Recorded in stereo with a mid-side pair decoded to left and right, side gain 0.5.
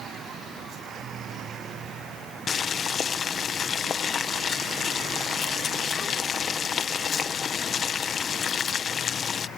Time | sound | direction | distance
2.5 | boiling | 50° left | ?